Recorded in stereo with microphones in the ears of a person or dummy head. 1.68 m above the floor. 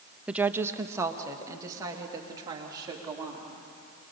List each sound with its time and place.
0.3 s a woman speaking: 10° right (ahead or behind), 0.6 m; by 3.5 s 25° right (ahead or behind), 4.5 m